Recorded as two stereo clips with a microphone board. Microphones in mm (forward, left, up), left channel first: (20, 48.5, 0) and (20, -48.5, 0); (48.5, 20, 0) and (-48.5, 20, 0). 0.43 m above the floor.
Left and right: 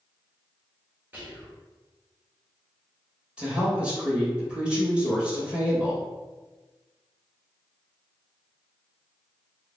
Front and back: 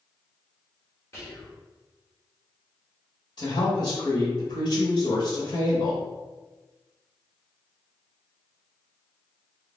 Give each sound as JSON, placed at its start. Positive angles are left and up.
{"t": 1.1, "sound": "whispering", "azimuth_deg": -35, "distance_m": 1.7}
{"t": 3.4, "sound": "a woman speaking", "azimuth_deg": -15, "distance_m": 1.7}